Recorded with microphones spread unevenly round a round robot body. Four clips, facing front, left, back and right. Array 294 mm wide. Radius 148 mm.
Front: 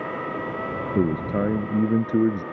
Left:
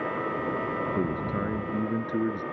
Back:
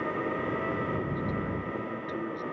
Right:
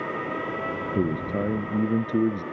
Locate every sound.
0.9 s a man speaking: 20° right; by 2.4 s 25° right